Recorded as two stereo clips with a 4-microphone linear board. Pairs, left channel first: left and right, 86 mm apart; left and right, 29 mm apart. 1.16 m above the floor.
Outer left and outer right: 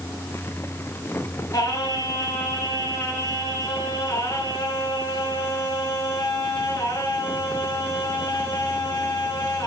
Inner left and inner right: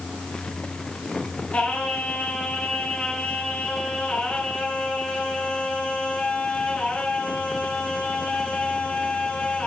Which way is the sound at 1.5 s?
50° left (ahead or behind).